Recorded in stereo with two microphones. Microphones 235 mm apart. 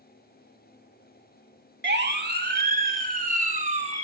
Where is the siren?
50° right (ahead or behind), 2.5 m; by 4.0 s 30° right (ahead or behind), 3 m.